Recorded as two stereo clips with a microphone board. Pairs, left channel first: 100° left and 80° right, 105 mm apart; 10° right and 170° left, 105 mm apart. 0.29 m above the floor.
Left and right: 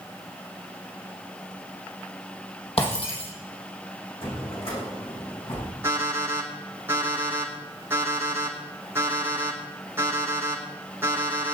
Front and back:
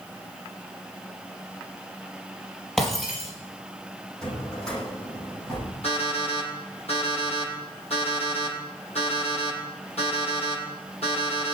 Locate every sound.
2.8 s breaking glass: 75° left, 5 m
4.2 s a drawer: 70° left, 8 m
5.8 s an alarm clock: 10° right, 7.5 m